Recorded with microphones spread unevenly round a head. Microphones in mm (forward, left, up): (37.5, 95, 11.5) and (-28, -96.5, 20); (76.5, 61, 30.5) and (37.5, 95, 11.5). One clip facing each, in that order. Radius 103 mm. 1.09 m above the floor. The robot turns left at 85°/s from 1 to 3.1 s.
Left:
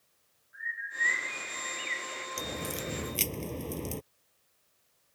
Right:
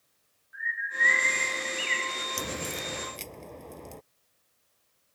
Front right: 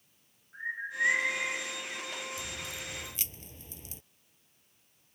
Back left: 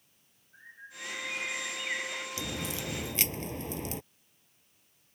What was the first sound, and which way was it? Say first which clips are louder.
A bird: right 6 dB, front right 14 dB; 80° right.